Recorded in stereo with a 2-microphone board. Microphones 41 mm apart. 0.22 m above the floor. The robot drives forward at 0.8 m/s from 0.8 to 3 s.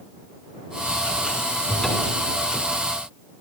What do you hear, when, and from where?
1.7 s a cupboard door: 5° left (ahead or behind), 2.5 m